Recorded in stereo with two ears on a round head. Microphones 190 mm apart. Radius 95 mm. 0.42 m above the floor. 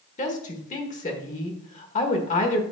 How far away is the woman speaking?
About 1.5 m.